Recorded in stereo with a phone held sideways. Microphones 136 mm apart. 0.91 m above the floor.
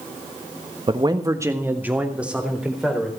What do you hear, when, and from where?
0.9 s a man speaking: 40° right (ahead or behind), 1.2 m; by 3.1 s 5° right (ahead or behind), 4 m